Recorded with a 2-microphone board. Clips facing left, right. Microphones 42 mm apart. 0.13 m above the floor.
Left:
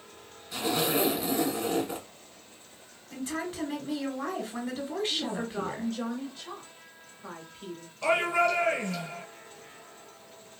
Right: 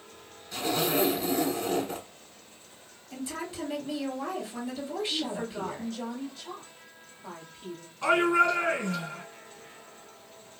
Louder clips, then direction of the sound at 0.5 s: Even; 10° left (ahead or behind).